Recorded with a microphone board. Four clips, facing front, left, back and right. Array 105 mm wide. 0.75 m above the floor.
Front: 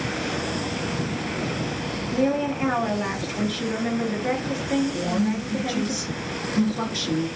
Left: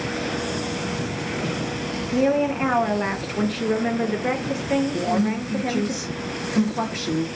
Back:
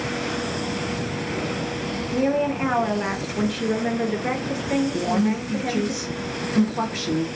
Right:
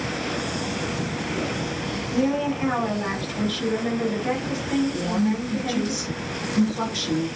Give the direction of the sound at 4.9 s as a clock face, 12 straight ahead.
7 o'clock.